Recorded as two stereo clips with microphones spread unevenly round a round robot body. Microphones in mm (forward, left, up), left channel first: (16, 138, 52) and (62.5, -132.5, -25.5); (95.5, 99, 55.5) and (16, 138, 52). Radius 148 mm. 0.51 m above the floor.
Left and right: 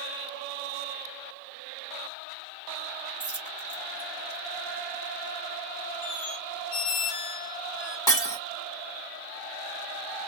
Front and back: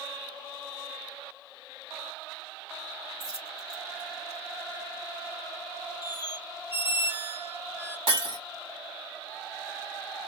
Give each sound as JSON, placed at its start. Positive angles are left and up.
{"t": 3.2, "sound": "a dropped coin", "azimuth_deg": 180, "distance_m": 1.8}
{"t": 6.0, "sound": "a squeak", "azimuth_deg": 85, "distance_m": 0.8}
{"t": 8.1, "sound": "breaking glass", "azimuth_deg": 180, "distance_m": 1.9}